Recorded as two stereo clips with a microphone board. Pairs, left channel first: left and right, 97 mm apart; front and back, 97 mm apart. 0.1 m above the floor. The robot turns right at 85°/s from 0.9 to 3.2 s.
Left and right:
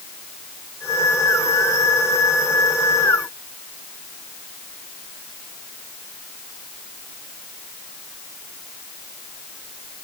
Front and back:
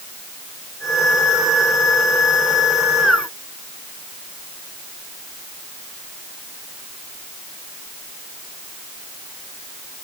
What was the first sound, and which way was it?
Only background noise.